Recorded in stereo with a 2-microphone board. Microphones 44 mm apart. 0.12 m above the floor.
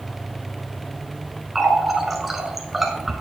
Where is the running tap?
5° right (ahead or behind), 0.9 m.